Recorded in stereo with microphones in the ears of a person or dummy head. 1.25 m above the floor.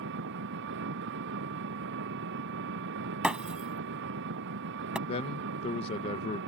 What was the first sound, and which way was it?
An engine running, 65° right (ahead or behind).